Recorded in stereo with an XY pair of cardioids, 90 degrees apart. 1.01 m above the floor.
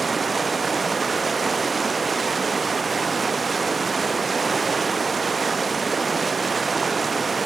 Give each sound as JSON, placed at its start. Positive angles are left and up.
{"t": 0.0, "sound": "running water", "azimuth_deg": -30, "distance_m": 0.7}